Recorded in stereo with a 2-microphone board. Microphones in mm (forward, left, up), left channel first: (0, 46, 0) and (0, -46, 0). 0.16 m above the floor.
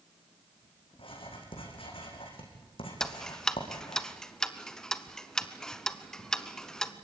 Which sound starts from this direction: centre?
Ticking, at 3.0 s.